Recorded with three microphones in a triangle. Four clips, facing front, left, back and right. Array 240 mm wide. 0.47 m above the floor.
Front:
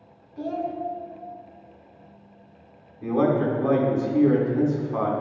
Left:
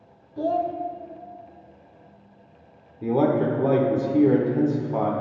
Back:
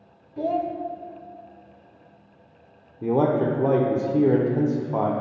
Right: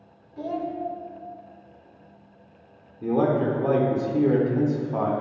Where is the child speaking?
140° left, 0.7 m.